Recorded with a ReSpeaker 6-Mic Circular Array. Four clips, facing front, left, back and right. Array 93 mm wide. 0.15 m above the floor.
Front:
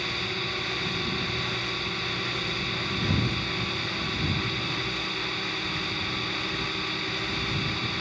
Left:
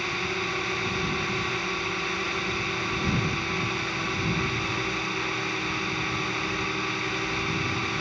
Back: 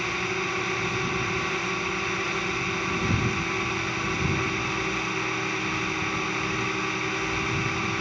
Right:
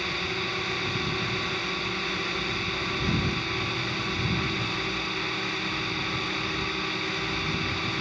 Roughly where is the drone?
Behind left.